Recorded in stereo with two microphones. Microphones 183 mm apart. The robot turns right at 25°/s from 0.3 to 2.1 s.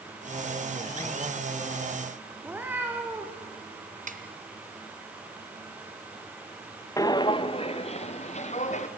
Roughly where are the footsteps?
Centre.